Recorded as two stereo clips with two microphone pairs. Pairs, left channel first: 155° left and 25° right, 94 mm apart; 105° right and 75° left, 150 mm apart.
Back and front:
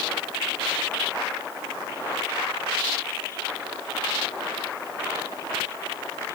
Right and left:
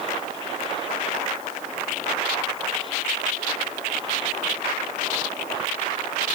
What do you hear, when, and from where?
Only background noise.